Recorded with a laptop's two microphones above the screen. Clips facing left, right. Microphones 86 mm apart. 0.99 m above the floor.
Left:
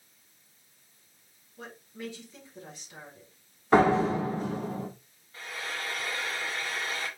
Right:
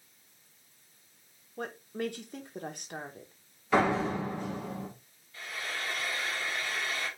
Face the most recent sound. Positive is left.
turn(degrees=35)  # may be behind; listen again after turning